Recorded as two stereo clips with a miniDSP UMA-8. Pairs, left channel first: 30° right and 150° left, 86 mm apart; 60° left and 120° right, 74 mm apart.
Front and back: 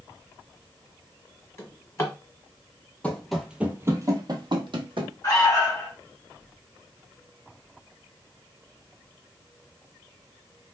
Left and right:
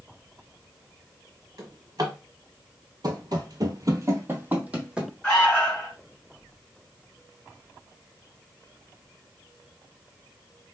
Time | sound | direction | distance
1.6 | a drawer | 90° right | 1.2 m
3.0 | running footsteps | 105° right | 0.6 m
5.2 | an alarm | 10° right | 1.7 m